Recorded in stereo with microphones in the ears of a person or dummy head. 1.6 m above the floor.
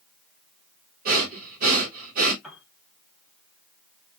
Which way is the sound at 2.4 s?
5° right (ahead or behind).